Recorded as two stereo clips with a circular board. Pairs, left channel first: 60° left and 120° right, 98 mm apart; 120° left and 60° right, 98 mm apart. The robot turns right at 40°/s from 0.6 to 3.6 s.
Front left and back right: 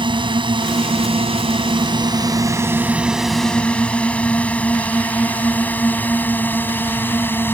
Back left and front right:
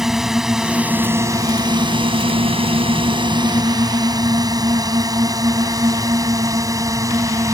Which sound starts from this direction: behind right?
A drone, at 0.0 s.